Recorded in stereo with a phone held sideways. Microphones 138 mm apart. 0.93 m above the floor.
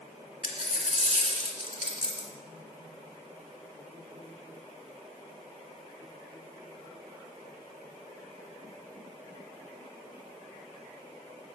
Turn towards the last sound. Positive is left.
turn(degrees=70)  # may be behind; listen again after turning